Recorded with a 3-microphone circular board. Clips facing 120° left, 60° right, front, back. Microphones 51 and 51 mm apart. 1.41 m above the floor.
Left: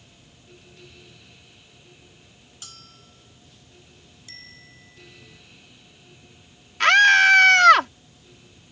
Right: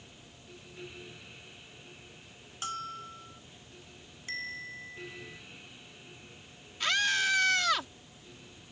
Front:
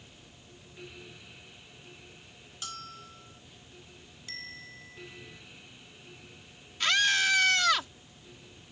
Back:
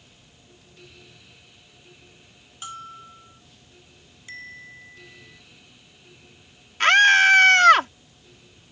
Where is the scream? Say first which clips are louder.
Left 15 dB, back 12 dB; 140° left.